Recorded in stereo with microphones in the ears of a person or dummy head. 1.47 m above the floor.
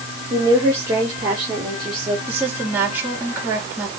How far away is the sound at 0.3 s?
About 3.5 m.